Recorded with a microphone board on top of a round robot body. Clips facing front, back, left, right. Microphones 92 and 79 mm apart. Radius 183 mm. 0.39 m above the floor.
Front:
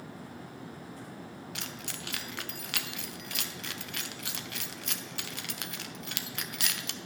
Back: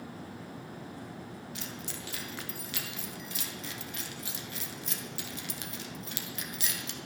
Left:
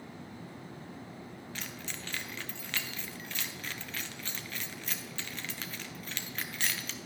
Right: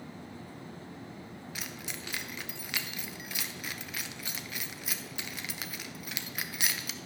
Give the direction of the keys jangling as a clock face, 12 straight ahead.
12 o'clock.